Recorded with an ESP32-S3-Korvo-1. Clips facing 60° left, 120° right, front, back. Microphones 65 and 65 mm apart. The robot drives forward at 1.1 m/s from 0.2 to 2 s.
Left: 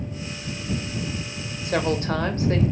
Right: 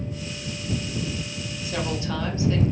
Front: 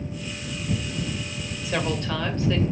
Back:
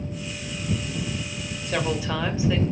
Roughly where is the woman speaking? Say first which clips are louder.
Left 5 dB, back 1 dB; left.